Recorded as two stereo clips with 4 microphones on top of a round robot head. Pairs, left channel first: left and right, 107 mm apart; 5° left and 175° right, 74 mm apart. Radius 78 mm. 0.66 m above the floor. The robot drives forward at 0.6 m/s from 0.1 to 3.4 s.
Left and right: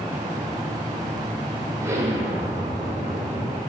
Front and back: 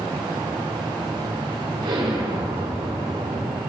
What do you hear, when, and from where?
1.8 s an explosion: 155° right, 2 m; by 3.6 s 160° right, 3 m